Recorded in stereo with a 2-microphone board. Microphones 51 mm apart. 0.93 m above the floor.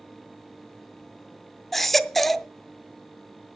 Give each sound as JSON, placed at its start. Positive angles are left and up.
{"t": 1.7, "sound": "a baby crying", "side_deg": 5, "distance_m": 0.5}